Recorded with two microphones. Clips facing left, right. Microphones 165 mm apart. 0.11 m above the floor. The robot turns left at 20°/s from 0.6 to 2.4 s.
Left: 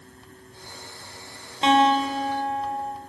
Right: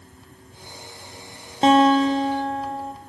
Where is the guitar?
40° right (ahead or behind), 2.5 m; by 2.9 s 25° right (ahead or behind), 2.5 m.